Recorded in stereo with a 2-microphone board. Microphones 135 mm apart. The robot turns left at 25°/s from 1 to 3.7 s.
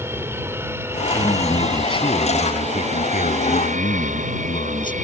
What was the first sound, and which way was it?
An aircraft, 20° right.